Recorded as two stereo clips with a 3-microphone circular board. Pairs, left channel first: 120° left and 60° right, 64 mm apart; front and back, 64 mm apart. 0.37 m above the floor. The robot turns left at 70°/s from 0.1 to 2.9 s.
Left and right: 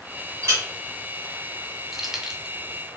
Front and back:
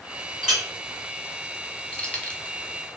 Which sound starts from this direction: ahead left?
Keys jangling, at 1.9 s.